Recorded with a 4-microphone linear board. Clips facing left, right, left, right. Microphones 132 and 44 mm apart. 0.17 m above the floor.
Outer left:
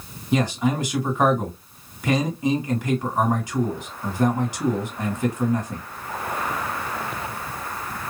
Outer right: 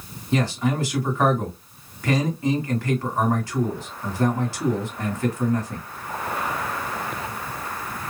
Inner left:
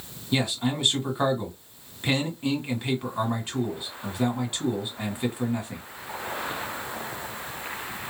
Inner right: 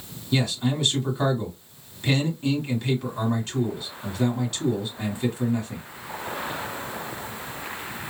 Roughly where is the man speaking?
Centre.